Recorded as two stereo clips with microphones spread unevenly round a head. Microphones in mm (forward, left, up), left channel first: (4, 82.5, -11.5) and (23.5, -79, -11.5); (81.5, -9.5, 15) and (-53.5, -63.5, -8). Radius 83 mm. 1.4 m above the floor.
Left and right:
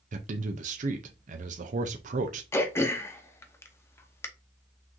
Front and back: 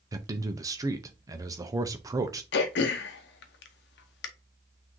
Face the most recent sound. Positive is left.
turn(degrees=20)